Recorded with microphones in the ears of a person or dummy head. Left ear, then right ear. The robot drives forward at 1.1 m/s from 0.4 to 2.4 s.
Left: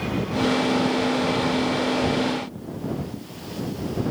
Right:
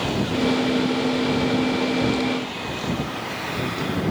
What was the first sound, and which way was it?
Only background noise.